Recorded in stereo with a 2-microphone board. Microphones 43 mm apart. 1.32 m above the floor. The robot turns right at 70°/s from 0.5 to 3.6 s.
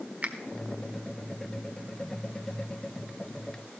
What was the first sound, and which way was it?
A finger snap, 40° right (ahead or behind).